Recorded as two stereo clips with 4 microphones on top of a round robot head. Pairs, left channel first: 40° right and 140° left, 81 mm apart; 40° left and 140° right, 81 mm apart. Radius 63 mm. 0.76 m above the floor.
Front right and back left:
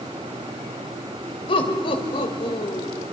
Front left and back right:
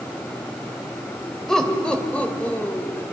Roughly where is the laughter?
Ahead right.